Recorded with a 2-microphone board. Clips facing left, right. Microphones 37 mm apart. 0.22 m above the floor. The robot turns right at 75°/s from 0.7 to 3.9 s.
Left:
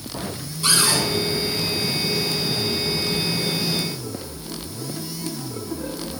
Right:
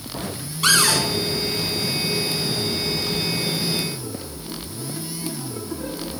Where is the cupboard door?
65° right (ahead or behind), 1.3 m; by 1.0 s 60° right (ahead or behind), 1.3 m.